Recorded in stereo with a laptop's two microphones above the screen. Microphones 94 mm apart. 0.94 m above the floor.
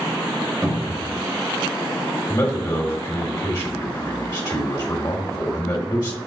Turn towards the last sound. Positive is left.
turn(degrees=45)  # may be behind; listen again after turning